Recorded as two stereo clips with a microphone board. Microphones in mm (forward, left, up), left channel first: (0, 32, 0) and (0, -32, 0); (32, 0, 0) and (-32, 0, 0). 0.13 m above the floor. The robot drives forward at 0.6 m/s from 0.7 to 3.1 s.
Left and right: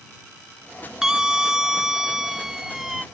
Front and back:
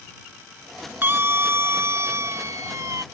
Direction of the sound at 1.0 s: 165° right.